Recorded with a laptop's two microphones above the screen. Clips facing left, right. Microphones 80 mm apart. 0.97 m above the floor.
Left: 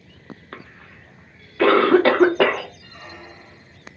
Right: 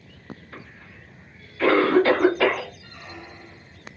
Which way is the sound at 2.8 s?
70° left (ahead or behind).